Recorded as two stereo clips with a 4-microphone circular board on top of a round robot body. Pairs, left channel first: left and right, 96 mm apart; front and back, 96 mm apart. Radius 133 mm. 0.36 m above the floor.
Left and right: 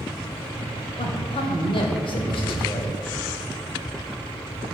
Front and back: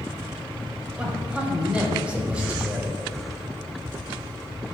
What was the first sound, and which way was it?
A man speaking, 105° left.